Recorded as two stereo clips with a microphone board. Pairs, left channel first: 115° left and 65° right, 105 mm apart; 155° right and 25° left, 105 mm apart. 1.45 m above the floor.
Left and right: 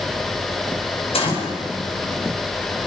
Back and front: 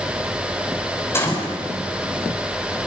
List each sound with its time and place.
1.1 s a gunshot: 135° left, 6 m